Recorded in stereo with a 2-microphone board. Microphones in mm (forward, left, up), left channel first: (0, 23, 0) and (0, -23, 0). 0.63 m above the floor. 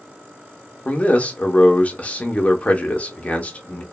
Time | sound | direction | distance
0.8 | a man speaking | 30° left (ahead or behind) | 0.6 m